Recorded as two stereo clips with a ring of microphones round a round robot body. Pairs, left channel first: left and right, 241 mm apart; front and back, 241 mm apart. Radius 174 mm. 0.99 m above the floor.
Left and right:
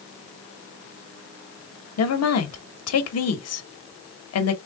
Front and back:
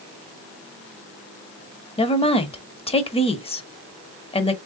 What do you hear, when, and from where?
2.0 s a woman speaking: 70° left, 0.9 m